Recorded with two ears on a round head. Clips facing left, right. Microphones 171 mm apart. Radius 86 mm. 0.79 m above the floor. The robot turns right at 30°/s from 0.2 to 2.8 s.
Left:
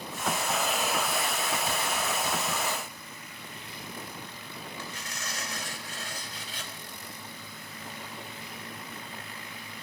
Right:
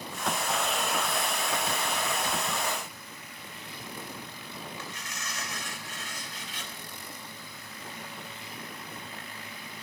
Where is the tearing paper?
30° left (ahead or behind), 3.5 m.